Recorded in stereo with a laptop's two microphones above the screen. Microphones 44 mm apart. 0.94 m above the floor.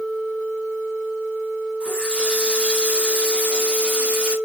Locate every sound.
1.8 s a running tap: 25° right (ahead or behind), 3.5 m